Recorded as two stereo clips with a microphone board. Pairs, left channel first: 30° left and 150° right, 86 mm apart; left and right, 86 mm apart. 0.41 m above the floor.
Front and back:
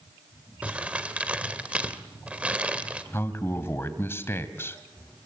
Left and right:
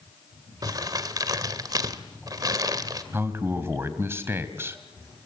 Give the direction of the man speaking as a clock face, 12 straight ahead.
1 o'clock.